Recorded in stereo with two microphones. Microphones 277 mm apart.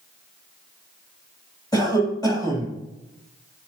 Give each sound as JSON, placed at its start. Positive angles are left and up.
{"t": 1.7, "sound": "a cough", "side_deg": 15, "distance_m": 3.0}